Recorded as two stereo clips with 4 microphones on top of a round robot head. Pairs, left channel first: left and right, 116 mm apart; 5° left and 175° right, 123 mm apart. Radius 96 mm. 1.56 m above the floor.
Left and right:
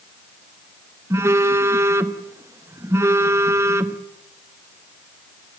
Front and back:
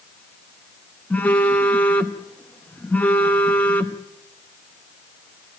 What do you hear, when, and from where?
1.1 s a phone buzzing: 60° right, 0.9 m